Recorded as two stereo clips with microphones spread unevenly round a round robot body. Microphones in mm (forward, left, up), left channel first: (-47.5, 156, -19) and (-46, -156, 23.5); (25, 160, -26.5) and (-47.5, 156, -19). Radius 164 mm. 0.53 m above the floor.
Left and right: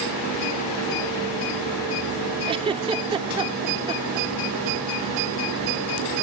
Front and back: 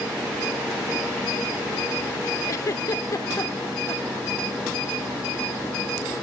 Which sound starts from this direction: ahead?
A giggle, at 2.5 s.